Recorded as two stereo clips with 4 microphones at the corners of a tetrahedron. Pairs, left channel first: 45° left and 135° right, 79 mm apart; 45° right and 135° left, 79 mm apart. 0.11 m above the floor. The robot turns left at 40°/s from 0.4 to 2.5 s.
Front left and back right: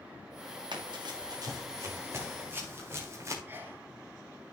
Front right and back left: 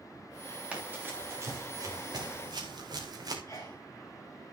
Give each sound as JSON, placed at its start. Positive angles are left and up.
{"t": 0.7, "sound": "running footsteps", "azimuth_deg": -145, "distance_m": 6.0}
{"t": 3.5, "sound": "a sneeze", "azimuth_deg": -85, "distance_m": 1.8}